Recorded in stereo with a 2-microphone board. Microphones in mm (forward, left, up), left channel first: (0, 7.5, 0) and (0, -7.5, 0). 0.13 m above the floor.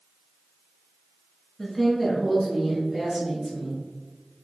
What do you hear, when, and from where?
1.6 s a woman speaking: 20° left (ahead or behind), 1.1 m; by 3.8 s 35° right (ahead or behind), 2 m